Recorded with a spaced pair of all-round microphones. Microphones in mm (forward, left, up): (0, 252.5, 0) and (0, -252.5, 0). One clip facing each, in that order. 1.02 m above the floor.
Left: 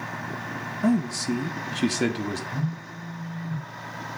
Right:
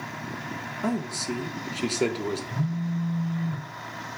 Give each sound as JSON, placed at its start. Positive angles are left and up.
{"t": 0.8, "sound": "a man speaking", "side_deg": 40, "distance_m": 0.7}
{"t": 2.5, "sound": "a phone buzzing", "side_deg": -85, "distance_m": 3.0}